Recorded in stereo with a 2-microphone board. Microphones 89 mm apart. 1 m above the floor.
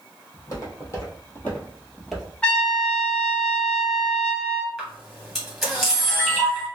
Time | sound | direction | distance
0.3 | footsteps | 40° left (ahead or behind) | 1.8 m
2.4 | a trumpet | 15° left (ahead or behind) | 0.9 m
4.8 | a camera shutter | centre (ahead or behind) | 1.7 m